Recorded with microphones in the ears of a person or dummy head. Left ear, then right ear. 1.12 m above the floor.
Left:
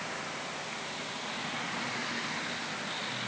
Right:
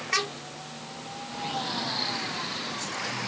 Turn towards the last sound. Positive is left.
No sound to turn to.